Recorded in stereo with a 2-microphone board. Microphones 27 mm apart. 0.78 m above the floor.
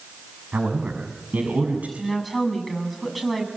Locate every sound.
0.5 s a man speaking: 80° right, 6.5 m; by 1.9 s 75° right (ahead or behind), 6.5 m
2.0 s a woman speaking: 5° right (ahead or behind), 7 m